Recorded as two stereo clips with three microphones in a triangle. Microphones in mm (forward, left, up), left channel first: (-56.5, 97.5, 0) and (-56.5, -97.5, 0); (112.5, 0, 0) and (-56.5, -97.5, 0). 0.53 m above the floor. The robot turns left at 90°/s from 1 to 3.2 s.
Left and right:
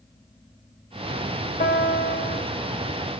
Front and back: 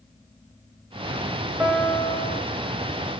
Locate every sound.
1.6 s a piano: 135° left, 1.9 m; by 2.4 s 55° left, 1.9 m